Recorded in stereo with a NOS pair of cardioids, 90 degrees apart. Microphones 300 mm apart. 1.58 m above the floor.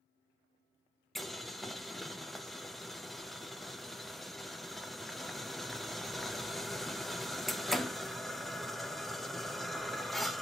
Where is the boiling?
Straight ahead, 0.6 m.